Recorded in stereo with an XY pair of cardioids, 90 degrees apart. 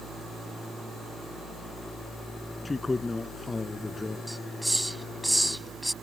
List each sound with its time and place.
2.6 s a man speaking: 30° left
4.3 s a hiss: straight ahead